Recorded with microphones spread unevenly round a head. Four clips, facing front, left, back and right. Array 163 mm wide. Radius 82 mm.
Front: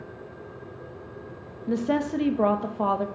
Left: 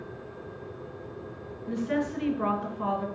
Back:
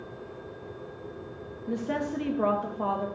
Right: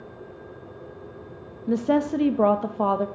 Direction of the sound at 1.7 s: 75° right.